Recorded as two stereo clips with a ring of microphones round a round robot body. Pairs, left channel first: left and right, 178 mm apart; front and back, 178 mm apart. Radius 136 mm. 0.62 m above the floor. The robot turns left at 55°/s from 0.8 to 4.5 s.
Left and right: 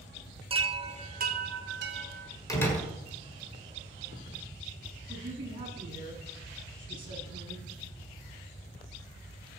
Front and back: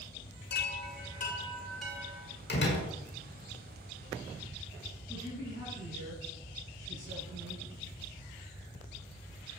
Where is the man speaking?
120° right, 7.5 m.